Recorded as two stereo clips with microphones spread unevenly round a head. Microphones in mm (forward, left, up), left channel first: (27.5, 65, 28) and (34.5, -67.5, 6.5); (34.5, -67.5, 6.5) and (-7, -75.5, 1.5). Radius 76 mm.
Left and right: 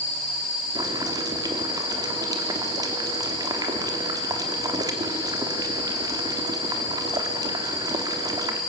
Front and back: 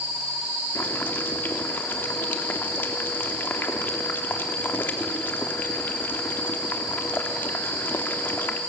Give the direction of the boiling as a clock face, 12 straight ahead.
1 o'clock.